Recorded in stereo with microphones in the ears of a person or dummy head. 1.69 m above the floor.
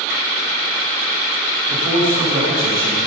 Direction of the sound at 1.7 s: 35° right (ahead or behind).